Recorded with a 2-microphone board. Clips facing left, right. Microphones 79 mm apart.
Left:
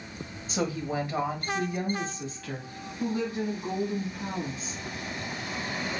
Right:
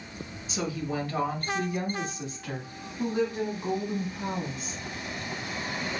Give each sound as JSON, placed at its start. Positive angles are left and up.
{"t": 0.5, "sound": "a woman speaking", "side_deg": 40, "distance_m": 1.1}